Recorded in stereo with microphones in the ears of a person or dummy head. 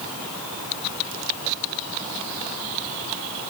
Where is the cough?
No cough in this recording.